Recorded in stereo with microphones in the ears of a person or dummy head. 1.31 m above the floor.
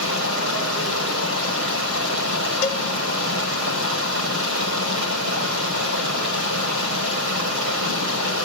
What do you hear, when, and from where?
0.0 s running water: 75° right (ahead or behind), 5 m
2.6 s a cowbell: 40° left (ahead or behind), 1.1 m